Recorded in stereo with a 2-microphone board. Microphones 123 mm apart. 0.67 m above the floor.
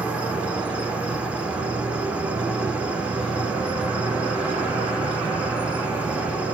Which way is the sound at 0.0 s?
10° right (ahead or behind).